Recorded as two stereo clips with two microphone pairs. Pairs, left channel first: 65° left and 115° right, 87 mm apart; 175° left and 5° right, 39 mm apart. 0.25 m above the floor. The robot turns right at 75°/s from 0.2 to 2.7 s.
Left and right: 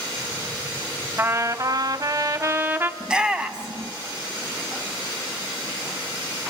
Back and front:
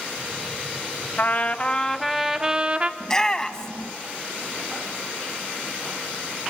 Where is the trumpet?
165° right, 1.1 m; by 2.9 s 50° right, 1.1 m.